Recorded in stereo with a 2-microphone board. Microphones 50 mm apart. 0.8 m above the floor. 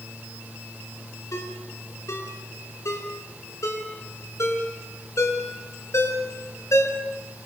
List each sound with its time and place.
1.3 s a ringtone: 80° left, 5.5 m